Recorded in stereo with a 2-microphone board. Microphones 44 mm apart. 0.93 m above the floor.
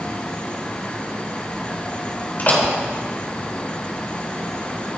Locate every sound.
2.4 s a door slam: 40° left (ahead or behind), 3 m